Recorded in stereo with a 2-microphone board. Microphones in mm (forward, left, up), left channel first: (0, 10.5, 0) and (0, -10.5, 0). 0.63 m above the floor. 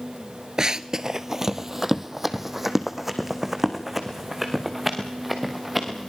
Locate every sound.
0.6 s running footsteps: 35° right (ahead or behind), 0.7 m; by 6.1 s 5° right (ahead or behind), 5 m